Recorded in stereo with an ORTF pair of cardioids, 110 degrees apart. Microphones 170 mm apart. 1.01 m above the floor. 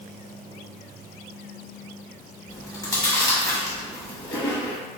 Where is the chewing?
20° left, 0.9 m.